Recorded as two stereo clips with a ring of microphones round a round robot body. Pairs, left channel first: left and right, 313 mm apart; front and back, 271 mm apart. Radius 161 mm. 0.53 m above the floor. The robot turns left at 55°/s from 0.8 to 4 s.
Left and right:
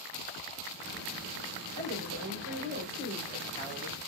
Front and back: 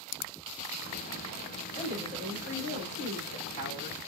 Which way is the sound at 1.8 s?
95° right.